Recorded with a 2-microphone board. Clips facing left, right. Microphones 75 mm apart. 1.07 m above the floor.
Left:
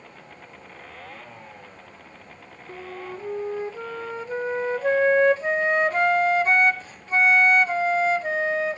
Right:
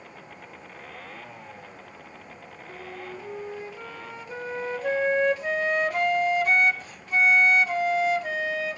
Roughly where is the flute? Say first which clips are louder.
Left 4 dB; left.